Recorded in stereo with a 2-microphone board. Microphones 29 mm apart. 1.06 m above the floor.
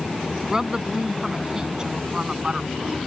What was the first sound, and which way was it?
A woman speaking, 15° right (ahead or behind).